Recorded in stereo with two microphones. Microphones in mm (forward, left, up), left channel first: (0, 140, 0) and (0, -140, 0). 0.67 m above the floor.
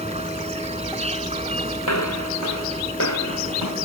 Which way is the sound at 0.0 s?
20° right (ahead or behind).